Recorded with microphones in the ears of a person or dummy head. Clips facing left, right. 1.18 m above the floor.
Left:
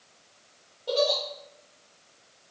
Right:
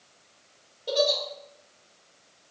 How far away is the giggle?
About 0.6 m.